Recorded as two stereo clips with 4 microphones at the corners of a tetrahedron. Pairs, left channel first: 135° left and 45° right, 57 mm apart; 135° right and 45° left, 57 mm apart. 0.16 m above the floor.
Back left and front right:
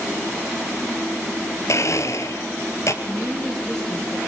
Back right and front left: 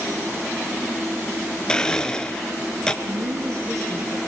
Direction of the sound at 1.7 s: 150° left.